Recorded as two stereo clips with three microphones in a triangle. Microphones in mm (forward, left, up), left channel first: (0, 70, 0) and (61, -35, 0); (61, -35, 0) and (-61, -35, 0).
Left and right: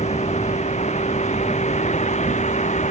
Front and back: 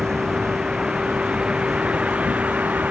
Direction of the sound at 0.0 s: 95° left.